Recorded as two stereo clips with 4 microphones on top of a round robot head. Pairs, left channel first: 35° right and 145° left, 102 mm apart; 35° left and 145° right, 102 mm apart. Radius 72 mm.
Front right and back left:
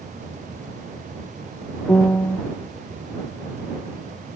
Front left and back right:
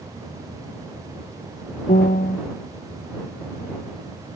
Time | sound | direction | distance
1.9 | a piano | 35° left | ?